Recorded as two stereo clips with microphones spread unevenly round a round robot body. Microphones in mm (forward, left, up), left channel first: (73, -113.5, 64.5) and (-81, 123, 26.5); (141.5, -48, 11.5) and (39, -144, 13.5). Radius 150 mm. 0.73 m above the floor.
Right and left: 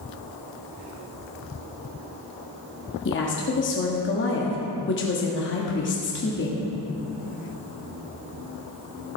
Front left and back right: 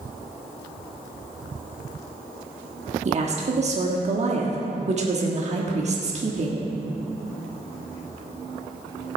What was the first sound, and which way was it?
A woman speaking, 105° right.